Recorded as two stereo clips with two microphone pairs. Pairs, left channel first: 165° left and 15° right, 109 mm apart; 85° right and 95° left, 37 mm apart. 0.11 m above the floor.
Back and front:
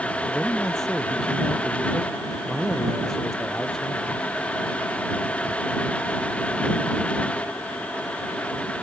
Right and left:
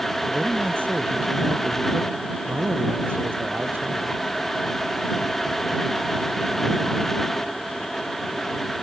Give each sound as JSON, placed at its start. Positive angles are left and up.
{"t": 0.3, "sound": "a man speaking", "azimuth_deg": 80}